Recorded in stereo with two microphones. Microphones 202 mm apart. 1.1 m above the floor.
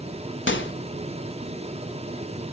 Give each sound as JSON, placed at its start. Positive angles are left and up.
{"t": 0.5, "sound": "a microwave", "side_deg": 70, "distance_m": 0.9}